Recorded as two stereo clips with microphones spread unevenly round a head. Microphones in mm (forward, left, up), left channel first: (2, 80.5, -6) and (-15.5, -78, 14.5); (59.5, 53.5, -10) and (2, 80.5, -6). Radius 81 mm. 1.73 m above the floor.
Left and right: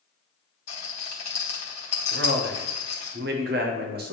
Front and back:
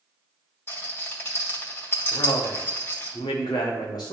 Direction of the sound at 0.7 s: 30° left.